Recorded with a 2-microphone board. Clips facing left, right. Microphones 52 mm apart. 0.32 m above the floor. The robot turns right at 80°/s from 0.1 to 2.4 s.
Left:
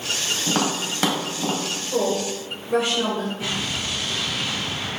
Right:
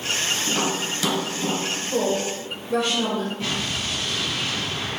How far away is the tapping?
About 1.0 m.